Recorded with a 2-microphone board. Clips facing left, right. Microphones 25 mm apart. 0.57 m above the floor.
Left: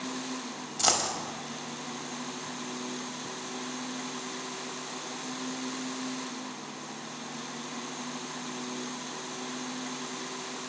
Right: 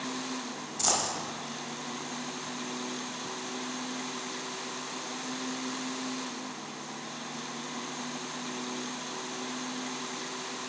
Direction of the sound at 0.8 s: 35° left (ahead or behind).